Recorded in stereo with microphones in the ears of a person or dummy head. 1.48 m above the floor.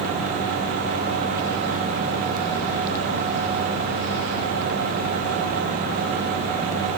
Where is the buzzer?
I don't hear a buzzer.